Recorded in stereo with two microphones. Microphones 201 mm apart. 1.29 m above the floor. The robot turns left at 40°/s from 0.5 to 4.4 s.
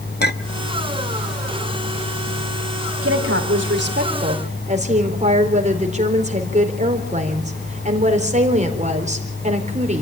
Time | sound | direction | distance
0.2 | a clink | 50° left (ahead or behind) | 0.9 m
3.0 | a woman speaking | 90° right | 4 m